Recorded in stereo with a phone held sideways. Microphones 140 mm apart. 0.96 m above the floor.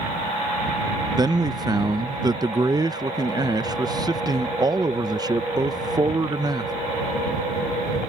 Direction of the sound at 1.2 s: 25° right (ahead or behind).